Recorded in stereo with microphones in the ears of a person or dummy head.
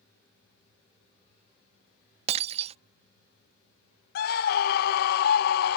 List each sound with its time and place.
2.3 s breaking glass: 40° right (ahead or behind)
4.2 s a scream: 50° left (ahead or behind)